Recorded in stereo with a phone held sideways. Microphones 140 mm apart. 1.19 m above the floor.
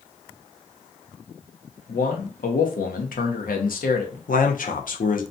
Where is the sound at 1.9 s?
80° left, 0.7 m.